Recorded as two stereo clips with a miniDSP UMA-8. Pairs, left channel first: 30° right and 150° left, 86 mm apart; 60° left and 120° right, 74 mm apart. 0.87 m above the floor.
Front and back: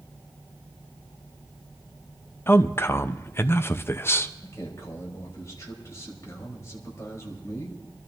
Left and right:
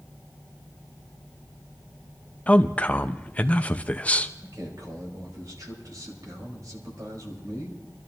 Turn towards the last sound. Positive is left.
turn(degrees=-85)